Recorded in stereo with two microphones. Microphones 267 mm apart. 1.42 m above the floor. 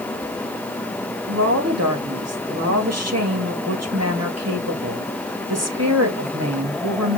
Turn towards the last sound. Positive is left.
turn(degrees=-70)  # may be behind; listen again after turning